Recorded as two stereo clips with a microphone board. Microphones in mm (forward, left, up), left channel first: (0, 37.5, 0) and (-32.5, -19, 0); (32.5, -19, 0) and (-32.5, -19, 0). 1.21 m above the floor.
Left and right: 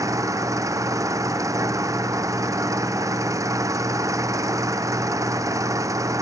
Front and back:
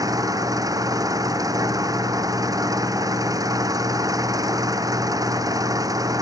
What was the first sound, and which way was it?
An engine running, 155° right.